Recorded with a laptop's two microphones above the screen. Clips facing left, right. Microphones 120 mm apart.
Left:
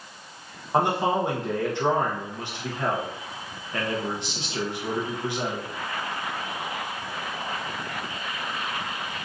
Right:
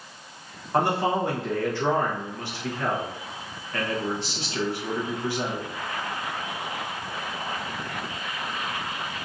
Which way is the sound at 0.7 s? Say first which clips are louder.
Left 1 dB; 20° left (ahead or behind).